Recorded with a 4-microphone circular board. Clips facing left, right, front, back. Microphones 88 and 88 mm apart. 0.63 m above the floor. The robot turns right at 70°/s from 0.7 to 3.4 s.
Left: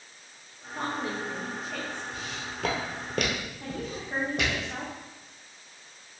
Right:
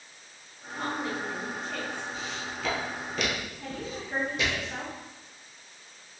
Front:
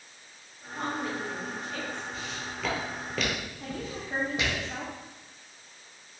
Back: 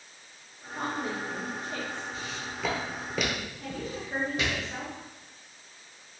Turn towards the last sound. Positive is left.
turn(degrees=45)